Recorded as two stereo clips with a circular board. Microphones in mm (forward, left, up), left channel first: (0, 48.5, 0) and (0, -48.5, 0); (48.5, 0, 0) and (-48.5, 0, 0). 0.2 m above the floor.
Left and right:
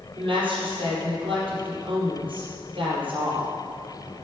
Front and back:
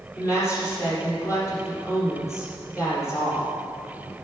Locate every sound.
0.2 s a woman speaking: 60° right, 5 m